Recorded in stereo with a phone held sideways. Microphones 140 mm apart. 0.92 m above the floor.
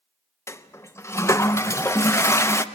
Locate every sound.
0.5 s a toilet flushing: 20° left (ahead or behind), 0.5 m